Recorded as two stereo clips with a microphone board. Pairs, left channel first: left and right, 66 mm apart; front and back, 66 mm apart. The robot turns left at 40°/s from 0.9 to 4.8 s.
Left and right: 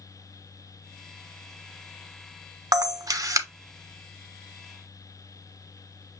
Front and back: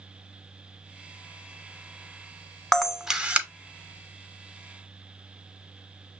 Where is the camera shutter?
85° right, 0.7 m; by 3.5 s 115° right, 0.7 m.